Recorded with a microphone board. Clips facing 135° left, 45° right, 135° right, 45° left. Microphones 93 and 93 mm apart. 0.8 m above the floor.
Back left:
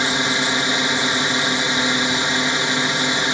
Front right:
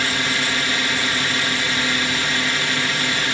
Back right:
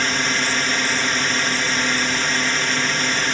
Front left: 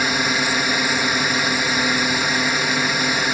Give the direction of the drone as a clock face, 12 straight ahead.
8 o'clock.